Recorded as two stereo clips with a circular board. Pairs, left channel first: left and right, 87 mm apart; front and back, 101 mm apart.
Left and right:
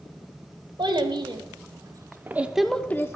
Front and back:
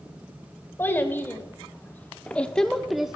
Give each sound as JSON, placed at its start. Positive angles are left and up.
{"t": 0.8, "sound": "a child speaking", "azimuth_deg": -70, "distance_m": 1.7}